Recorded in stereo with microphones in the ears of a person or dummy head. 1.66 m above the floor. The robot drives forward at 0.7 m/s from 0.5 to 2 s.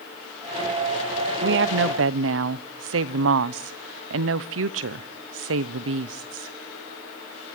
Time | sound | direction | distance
1.4 | a woman speaking | 65° right (ahead or behind) | 0.9 m